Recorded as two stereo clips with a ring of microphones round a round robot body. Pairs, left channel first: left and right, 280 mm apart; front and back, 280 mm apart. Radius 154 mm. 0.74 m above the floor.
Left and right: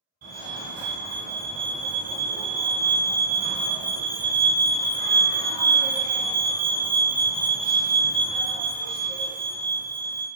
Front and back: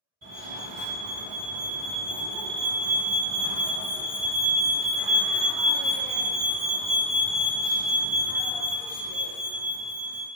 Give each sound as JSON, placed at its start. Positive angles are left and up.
{"t": 0.2, "sound": "a fire alarm", "azimuth_deg": -130, "distance_m": 1.9}